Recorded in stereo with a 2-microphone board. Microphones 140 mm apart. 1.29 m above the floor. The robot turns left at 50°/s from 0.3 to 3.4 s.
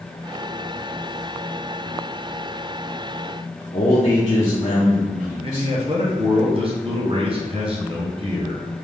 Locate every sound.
3.7 s a man speaking: 45° left (ahead or behind), 0.8 m
5.4 s a man speaking: 40° right (ahead or behind), 0.8 m